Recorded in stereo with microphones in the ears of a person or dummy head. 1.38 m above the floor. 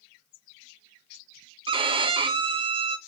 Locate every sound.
1.7 s a violin: 30° right (ahead or behind), 0.6 m